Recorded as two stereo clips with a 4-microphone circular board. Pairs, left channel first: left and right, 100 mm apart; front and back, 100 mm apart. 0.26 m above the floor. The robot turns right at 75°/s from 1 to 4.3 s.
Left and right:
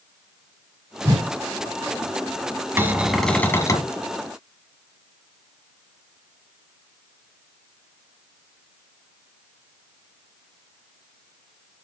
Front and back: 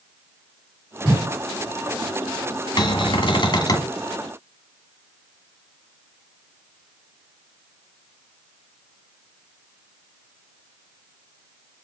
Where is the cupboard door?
30° right, 1.5 m; by 3.9 s 55° left, 1.5 m.